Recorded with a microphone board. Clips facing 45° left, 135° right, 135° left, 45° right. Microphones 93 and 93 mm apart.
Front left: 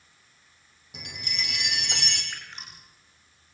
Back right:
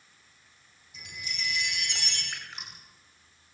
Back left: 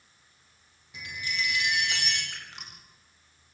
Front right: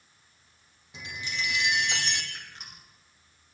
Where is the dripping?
140° left, 9.5 m.